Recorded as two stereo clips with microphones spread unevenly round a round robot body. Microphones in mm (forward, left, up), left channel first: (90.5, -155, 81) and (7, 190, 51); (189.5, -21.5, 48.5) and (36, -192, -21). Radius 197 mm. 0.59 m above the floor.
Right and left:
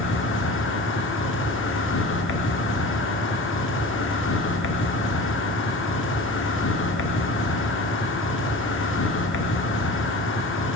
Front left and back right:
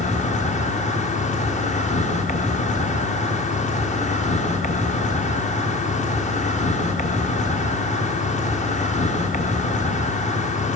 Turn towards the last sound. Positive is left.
turn(degrees=-20)